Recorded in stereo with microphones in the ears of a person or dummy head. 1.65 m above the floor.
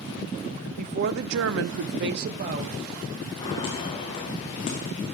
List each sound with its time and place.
0.8 s a woman speaking: 40° right (ahead or behind), 1.1 m; by 3.3 s 30° right (ahead or behind), 2 m
3.4 s footsteps: 25° left (ahead or behind), 5 m; by 4.9 s 40° left (ahead or behind), 4 m